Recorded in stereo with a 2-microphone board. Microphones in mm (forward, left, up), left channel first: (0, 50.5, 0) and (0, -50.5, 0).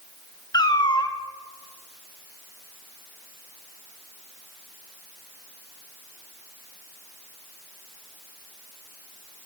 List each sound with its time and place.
0.5 s a cat meowing: 45° left (ahead or behind), 0.5 m